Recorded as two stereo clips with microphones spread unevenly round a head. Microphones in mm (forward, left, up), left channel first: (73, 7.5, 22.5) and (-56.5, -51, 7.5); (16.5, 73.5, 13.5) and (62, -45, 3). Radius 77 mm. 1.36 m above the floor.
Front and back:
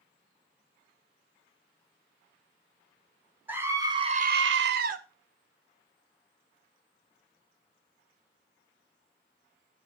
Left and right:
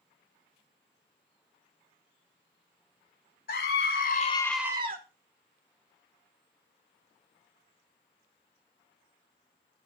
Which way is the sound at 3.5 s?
125° left.